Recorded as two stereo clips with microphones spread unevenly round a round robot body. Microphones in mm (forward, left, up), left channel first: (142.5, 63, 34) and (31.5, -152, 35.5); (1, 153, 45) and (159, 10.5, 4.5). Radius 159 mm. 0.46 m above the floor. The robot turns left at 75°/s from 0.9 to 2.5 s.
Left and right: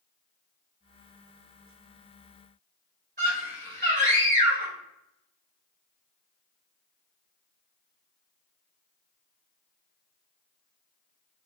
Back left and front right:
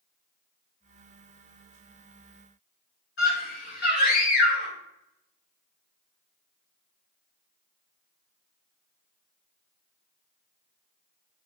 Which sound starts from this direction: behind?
A scream, at 3.2 s.